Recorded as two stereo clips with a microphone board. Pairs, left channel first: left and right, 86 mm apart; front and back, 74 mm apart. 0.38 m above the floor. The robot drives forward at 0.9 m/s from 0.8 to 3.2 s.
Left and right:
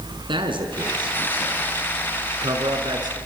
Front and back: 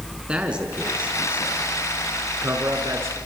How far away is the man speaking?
About 4 m.